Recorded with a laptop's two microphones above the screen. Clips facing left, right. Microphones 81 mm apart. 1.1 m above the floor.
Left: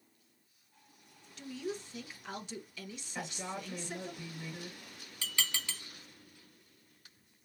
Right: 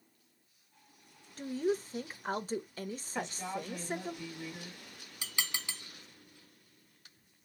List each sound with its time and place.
1.4 s a woman speaking: 40° right (ahead or behind), 0.7 m
3.1 s a woman speaking: 10° left (ahead or behind), 1.8 m
5.2 s dishes clattering: 15° right (ahead or behind), 1.3 m